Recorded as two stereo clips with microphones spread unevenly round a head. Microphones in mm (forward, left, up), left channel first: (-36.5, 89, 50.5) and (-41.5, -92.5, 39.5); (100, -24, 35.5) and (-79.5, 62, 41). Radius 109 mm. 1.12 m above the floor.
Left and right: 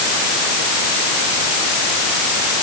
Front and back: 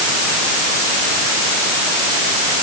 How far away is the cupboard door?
No cupboard door in this recording.